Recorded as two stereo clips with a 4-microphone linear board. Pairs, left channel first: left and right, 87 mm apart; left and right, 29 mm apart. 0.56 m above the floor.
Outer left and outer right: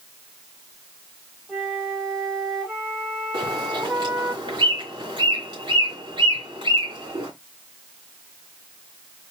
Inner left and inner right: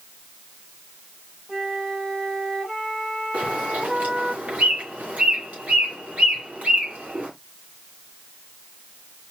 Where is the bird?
60° right (ahead or behind), 2.5 m.